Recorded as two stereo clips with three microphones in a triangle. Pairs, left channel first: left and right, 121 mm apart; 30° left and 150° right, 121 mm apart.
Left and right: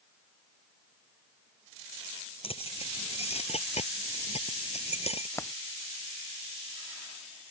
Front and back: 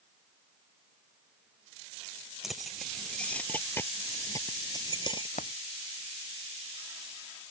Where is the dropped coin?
20° left.